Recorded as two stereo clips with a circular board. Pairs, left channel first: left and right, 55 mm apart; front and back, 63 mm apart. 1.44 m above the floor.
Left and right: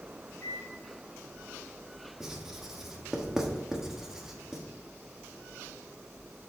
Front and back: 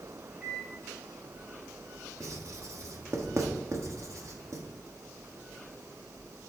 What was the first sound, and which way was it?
A microwave, 110° left.